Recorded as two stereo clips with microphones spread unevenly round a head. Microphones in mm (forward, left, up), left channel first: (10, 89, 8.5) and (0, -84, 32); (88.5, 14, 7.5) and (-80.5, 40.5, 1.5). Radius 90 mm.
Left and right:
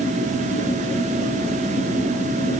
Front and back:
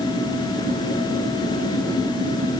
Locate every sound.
Only background noise.